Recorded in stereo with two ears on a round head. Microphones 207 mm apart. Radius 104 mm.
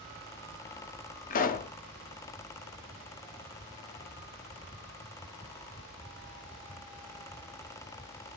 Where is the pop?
35° left (ahead or behind), 0.5 m.